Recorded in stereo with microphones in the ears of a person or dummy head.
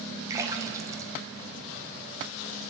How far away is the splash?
About 2 m.